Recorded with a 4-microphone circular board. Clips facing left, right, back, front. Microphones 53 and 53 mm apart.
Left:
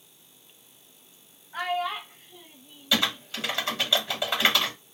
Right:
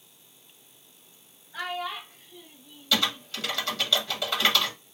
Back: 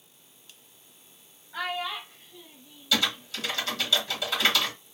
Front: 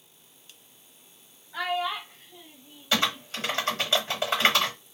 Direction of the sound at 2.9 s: 25° left.